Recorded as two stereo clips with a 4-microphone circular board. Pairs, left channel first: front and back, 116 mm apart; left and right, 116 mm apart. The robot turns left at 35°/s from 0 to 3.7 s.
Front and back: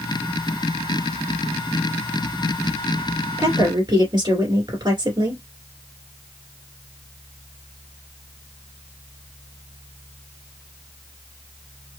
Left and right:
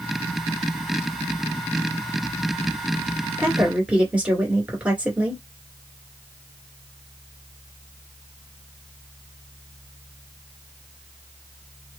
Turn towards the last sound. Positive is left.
turn(degrees=-165)